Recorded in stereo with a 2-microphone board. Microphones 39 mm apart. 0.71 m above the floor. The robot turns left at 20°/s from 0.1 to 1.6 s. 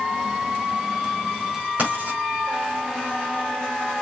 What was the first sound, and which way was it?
Writing, 40° right (ahead or behind).